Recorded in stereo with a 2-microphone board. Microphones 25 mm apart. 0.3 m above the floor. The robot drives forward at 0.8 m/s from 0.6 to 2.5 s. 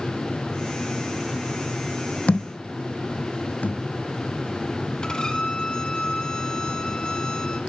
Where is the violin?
35° left (ahead or behind), 1.5 m.